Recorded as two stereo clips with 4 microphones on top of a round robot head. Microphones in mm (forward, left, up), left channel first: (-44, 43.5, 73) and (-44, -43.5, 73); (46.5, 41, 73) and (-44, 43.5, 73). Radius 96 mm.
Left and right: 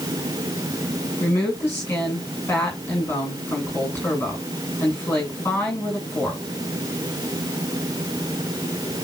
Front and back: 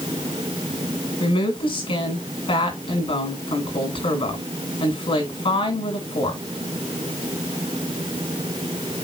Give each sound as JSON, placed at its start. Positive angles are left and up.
{"t": 1.2, "sound": "a woman speaking", "azimuth_deg": 20, "distance_m": 7.5}